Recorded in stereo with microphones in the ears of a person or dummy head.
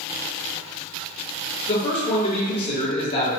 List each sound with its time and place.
1.7 s a man speaking: 40° left (ahead or behind), 1.4 m